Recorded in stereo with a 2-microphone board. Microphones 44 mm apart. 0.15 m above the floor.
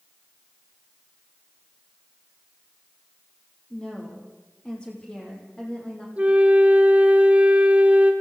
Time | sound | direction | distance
3.7 | a woman speaking | 20° left (ahead or behind) | 7 m
6.2 | a flute | 30° right (ahead or behind) | 1.8 m